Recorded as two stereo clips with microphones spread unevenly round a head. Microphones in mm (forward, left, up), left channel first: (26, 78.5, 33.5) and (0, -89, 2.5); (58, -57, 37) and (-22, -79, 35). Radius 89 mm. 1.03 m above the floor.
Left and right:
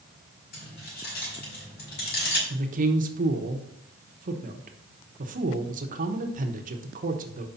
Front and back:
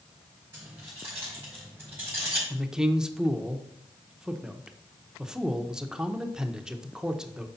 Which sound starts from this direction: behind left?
Keys jangling, at 0.5 s.